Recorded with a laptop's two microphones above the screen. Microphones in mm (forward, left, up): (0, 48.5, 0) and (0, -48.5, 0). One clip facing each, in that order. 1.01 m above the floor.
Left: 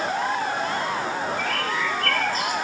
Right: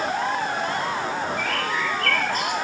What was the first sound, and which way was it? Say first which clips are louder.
A bird: even; 65° right (ahead or behind).